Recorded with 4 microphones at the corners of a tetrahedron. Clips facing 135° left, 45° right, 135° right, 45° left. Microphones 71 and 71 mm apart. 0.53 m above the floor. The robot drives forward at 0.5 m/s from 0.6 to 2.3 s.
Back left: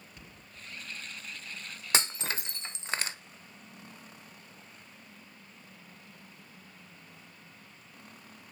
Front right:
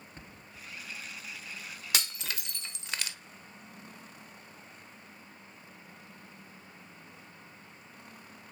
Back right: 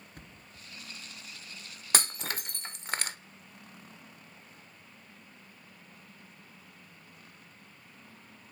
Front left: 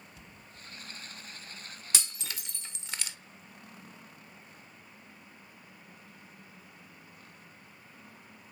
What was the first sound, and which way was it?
A thud, 95° right.